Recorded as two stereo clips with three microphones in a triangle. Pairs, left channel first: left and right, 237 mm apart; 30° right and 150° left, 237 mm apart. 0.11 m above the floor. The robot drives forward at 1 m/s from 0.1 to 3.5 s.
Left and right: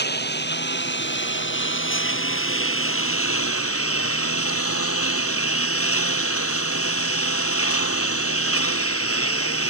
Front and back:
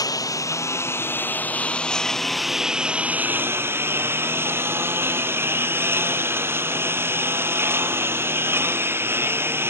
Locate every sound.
0.0 s a lawn mower: 45° left; by 9.7 s 70° left